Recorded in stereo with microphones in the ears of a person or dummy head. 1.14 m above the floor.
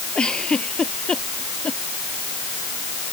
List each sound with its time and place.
0.1 s a giggle: centre (ahead or behind)